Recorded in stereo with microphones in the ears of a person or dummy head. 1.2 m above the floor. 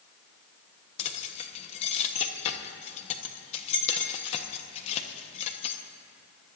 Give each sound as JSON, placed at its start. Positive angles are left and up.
{"t": 1.0, "sound": "keys jangling", "side_deg": 30, "distance_m": 1.1}